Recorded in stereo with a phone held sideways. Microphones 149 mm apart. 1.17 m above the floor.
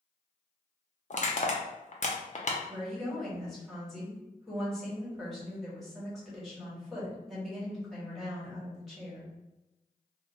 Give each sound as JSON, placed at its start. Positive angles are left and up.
{"t": 1.1, "sound": "crushing", "side_deg": 55, "distance_m": 0.5}
{"t": 2.7, "sound": "a woman speaking", "side_deg": 0, "distance_m": 1.5}